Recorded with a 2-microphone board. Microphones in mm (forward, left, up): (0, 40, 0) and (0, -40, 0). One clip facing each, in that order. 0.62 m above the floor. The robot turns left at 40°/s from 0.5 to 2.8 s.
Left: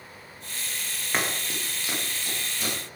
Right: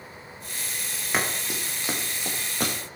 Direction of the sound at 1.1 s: 5° right (ahead or behind).